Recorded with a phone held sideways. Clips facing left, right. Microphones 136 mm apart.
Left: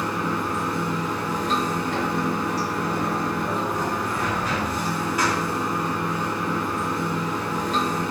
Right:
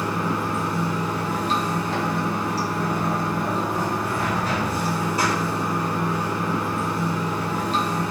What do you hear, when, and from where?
0.0 s running water: 30° right (ahead or behind), 1.2 m